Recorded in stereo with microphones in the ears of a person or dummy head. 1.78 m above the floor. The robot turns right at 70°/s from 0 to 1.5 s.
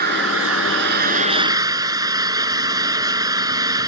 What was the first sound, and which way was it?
An engine running, 135° right.